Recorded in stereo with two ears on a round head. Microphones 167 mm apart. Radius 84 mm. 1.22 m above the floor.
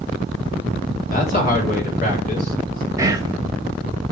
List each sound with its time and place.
1.1 s a man speaking: 50° left (ahead or behind), 3 m
3.0 s whispering: 20° right (ahead or behind), 1.3 m